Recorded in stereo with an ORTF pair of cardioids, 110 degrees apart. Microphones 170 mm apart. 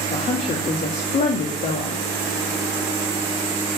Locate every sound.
0.1 s a woman speaking: 45° left, 2.5 m